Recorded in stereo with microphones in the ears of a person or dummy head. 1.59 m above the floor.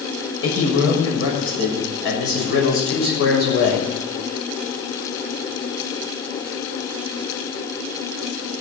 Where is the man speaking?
85° left, 6.5 m; by 3.9 s 70° left (ahead or behind), 6 m.